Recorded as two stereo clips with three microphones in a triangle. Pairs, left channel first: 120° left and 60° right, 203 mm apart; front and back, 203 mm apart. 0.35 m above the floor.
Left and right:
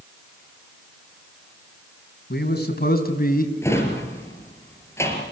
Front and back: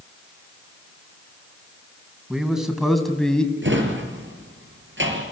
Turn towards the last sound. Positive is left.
turn(degrees=-165)